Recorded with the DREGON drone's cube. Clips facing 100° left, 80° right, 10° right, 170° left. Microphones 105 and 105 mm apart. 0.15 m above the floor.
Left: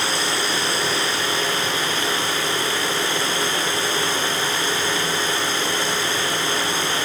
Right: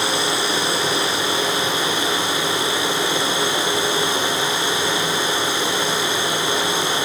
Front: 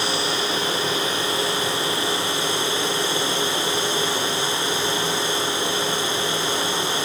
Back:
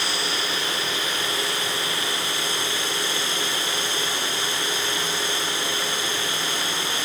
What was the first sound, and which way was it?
Only background noise.